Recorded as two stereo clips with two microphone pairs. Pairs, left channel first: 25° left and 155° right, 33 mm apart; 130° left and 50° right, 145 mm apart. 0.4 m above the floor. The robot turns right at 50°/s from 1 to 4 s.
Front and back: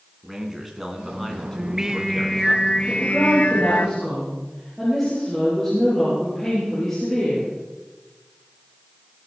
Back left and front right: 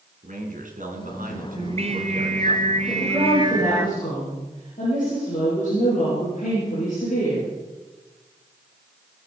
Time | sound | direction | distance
0.2 | a man speaking | 75° right | 3 m
1.6 | singing | 95° right | 0.7 m
2.9 | a woman speaking | 45° left | 7.5 m